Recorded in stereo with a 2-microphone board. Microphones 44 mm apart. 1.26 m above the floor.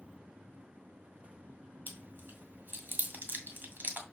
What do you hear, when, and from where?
1.9 s chewing: 50° right (ahead or behind), 1.9 m